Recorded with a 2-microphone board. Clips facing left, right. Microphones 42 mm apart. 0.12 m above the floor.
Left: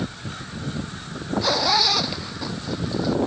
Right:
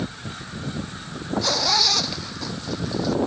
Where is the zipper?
10° left (ahead or behind).